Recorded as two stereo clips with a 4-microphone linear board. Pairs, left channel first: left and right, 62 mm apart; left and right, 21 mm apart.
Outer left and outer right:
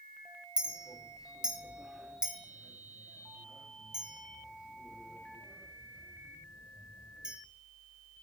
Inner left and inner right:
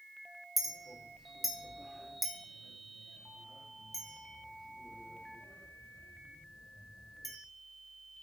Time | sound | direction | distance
0.6 | a clink | 15° right (ahead or behind) | 0.9 m